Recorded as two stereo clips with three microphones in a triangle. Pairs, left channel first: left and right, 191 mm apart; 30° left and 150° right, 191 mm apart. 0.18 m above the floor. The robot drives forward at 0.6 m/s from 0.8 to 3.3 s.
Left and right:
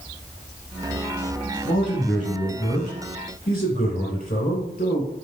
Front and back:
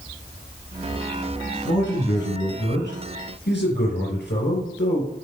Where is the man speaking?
40° left, 4.5 m; by 5.1 s 50° left, 3.5 m.